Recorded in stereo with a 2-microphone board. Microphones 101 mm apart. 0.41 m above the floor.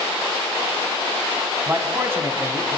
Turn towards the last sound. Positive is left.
turn(degrees=-25)  # may be behind; listen again after turning